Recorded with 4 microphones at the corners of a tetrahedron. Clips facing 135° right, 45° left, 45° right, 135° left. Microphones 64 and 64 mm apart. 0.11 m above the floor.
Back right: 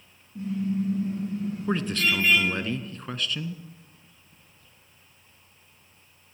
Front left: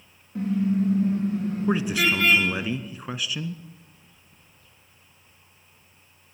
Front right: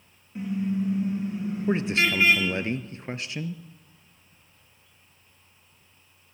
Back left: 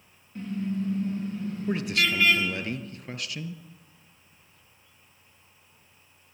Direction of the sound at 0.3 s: 30° left.